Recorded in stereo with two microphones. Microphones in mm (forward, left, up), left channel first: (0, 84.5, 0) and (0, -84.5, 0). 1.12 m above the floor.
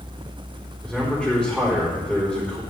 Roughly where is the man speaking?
Centre.